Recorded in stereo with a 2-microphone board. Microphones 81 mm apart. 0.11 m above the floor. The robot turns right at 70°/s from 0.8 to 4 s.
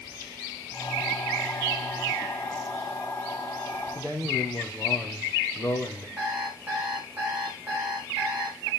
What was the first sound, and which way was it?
A man speaking, 20° left (ahead or behind).